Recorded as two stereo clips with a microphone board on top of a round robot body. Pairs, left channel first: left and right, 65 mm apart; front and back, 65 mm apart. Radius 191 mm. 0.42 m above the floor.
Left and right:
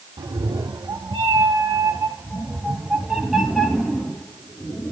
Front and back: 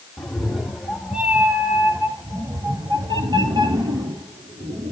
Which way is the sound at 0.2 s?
90° right.